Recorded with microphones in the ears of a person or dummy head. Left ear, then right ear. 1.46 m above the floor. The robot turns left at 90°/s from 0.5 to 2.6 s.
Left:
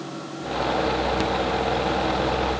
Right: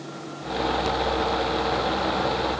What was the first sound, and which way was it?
Only background noise.